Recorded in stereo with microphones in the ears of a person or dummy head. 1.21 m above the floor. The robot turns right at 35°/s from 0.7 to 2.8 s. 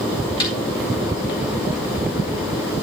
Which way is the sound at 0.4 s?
20° left (ahead or behind).